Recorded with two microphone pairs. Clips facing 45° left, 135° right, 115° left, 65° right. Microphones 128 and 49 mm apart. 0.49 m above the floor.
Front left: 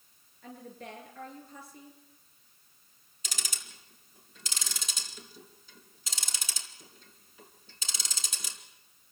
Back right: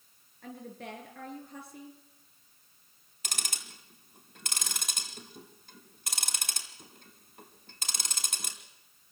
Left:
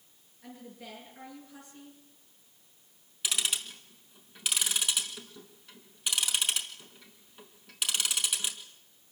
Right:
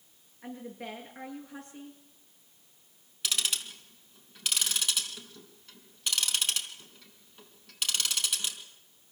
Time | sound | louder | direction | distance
0.4 | a woman speaking | back right 2 dB, right 6 dB | 105° right | 8.5 m
3.2 | ticking | back right 2 dB, even | 165° right | 3.5 m